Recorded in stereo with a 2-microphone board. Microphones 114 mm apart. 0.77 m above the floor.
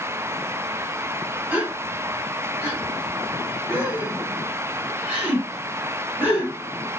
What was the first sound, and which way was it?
A gasp, 15° right (ahead or behind).